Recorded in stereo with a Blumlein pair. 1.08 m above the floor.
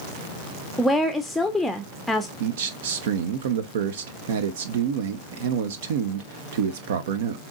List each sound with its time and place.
0.8 s a woman speaking: 5° left, 0.7 m
2.4 s a man speaking: 55° right, 0.6 m